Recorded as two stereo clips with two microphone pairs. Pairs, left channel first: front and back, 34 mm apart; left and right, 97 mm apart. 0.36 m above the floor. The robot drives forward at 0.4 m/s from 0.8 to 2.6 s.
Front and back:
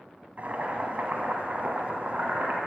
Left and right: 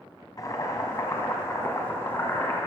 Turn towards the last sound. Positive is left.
turn(degrees=155)